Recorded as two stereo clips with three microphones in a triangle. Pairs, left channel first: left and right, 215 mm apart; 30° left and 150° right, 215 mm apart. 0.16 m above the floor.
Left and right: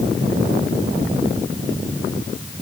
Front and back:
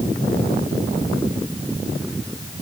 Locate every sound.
Only background noise.